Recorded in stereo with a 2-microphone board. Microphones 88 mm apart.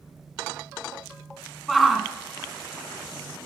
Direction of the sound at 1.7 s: Centre (ahead or behind).